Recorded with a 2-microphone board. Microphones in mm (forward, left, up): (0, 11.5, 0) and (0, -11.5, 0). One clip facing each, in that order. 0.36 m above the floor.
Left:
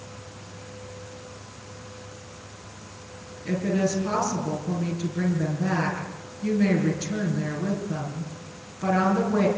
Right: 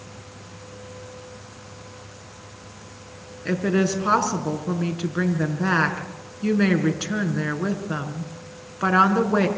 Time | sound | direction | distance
3.5 | a woman speaking | 55° right (ahead or behind) | 5 m